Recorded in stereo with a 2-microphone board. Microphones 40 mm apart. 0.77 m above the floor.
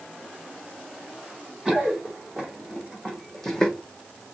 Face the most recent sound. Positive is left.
turn(degrees=20)  # may be behind; listen again after turning